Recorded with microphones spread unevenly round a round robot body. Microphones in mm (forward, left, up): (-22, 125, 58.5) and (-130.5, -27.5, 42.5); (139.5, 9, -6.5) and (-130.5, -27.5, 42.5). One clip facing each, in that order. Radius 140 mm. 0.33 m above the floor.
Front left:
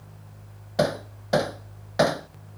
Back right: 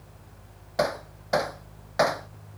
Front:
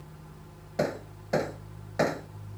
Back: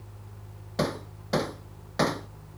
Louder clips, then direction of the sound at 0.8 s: Front left 3 dB, even; 110° left.